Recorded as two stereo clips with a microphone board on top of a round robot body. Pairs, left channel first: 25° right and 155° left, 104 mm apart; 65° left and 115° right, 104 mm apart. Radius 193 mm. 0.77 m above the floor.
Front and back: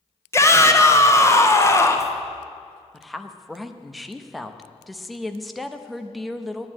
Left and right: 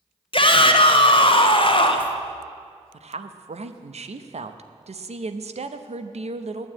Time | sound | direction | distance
0.3 | a shout | 40° left | 1.7 m
2.9 | a woman speaking | 110° right | 0.9 m